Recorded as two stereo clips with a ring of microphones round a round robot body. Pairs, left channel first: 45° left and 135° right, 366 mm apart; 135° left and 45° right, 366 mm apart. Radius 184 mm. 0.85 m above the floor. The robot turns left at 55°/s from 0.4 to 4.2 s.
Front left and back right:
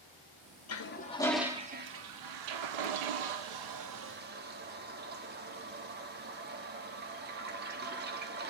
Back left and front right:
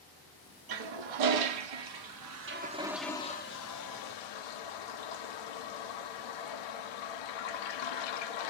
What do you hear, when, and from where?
0.7 s a toilet flushing: 10° right, 1.0 m; by 8.5 s 160° left, 1.0 m